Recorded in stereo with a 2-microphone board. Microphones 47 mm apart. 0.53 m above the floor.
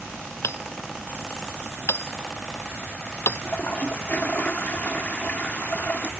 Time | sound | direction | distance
0.4 | hammering | 65° left (ahead or behind) | ?
3.4 | a toilet flushing | 40° left (ahead or behind) | ?